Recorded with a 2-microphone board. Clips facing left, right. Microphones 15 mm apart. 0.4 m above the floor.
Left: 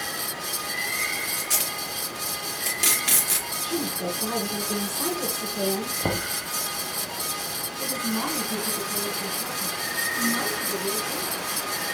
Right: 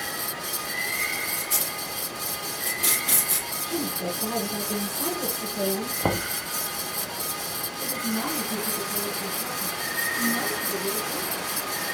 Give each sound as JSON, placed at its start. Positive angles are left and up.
{"t": 1.4, "sound": "tape being pulled", "side_deg": 70, "distance_m": 3.5}
{"t": 3.6, "sound": "a woman speaking", "side_deg": 65, "distance_m": 5.5}
{"t": 6.0, "sound": "knocking", "side_deg": -65, "distance_m": 1.3}
{"t": 7.8, "sound": "a woman speaking", "side_deg": 70, "distance_m": 3.5}